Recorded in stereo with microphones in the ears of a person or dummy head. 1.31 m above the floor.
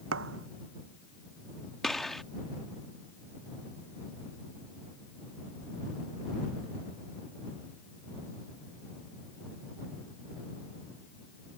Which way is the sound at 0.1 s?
80° right.